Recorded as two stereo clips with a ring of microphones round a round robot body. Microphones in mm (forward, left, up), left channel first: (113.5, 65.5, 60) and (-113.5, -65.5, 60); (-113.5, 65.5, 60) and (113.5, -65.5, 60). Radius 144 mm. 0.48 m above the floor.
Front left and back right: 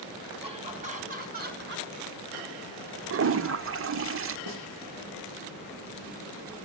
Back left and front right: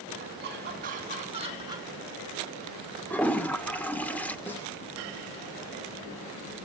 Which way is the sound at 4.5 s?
125° right.